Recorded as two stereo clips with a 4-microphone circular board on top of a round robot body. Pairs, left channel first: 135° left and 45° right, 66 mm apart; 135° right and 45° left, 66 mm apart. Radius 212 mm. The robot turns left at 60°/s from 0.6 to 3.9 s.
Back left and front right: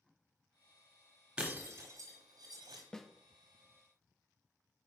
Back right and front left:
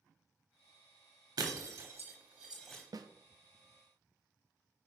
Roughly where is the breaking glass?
Ahead left.